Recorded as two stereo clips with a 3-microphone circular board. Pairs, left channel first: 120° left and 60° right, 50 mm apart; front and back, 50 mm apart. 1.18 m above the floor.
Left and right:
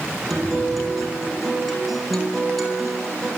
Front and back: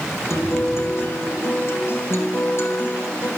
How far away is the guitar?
About 4.5 m.